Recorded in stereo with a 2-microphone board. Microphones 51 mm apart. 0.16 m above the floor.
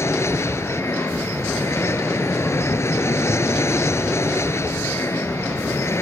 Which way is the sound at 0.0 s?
60° left (ahead or behind).